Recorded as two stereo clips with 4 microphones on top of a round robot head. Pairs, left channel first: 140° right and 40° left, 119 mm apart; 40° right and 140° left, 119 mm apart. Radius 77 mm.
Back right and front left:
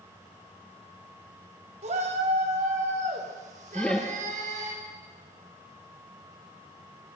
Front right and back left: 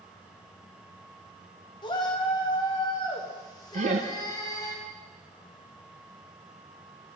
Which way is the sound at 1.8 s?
10° left.